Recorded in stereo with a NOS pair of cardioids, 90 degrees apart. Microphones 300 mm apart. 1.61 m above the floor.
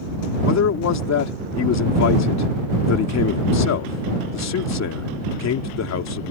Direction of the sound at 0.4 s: 60° left.